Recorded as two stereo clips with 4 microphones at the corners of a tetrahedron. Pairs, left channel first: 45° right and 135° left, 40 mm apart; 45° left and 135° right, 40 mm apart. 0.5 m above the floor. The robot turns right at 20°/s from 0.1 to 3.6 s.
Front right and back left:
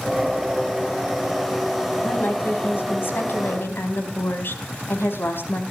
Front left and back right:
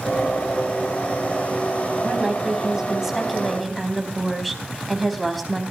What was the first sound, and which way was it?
A woman speaking, 75° right.